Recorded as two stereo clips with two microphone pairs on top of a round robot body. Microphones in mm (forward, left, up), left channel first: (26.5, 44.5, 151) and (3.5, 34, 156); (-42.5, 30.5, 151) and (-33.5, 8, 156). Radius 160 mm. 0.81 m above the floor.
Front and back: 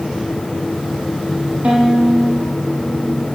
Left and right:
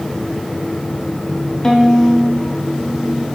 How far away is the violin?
About 0.6 m.